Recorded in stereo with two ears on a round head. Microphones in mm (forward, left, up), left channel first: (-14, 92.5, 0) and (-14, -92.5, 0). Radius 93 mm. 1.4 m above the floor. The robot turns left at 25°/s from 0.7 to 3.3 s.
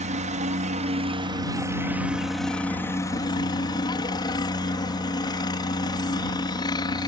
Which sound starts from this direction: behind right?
A helicopter, at 0.0 s.